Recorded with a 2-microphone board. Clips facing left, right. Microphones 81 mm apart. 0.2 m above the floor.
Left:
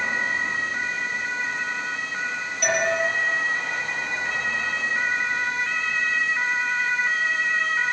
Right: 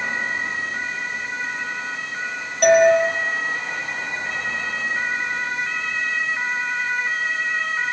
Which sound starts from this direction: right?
A doorbell, at 2.6 s.